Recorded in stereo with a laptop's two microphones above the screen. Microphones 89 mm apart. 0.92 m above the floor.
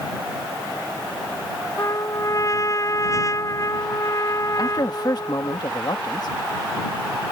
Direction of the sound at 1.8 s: 40° left (ahead or behind).